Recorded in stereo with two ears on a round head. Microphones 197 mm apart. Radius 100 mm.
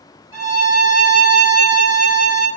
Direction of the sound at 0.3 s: 25° left (ahead or behind).